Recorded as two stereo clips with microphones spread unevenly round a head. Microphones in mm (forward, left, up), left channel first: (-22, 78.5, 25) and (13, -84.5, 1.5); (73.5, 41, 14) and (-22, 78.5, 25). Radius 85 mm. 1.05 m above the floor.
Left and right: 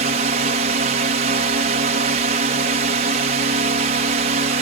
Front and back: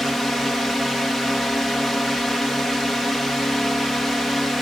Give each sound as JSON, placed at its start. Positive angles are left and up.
{"t": 0.0, "sound": "a drone", "azimuth_deg": -110}